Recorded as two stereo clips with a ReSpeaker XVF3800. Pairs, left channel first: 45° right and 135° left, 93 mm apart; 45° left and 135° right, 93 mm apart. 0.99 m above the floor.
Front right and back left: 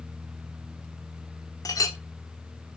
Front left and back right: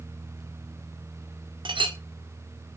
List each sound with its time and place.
1.6 s a clink: 100° right, 1.3 m